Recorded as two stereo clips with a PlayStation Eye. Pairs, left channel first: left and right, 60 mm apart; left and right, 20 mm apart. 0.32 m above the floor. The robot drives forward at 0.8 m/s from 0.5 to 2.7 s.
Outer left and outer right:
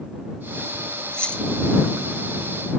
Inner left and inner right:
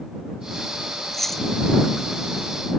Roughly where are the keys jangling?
Centre.